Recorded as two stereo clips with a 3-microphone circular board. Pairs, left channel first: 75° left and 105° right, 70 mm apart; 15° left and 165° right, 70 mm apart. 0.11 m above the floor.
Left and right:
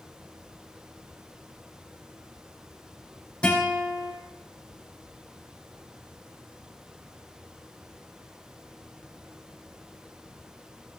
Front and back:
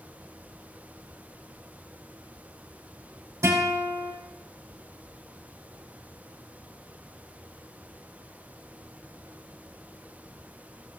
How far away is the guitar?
About 5.5 m.